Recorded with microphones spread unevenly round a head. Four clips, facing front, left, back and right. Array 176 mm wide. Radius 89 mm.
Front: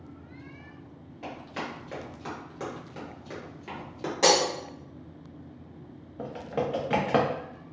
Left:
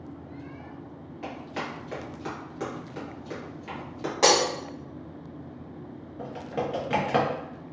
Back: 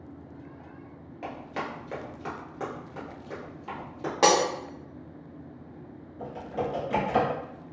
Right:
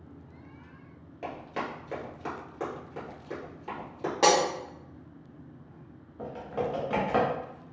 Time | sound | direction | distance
1.2 | running footsteps | 145° right | 1.5 m
4.2 | breaking glass | 175° left | 0.9 m
6.2 | typing on a keyboard | 5° left | 0.6 m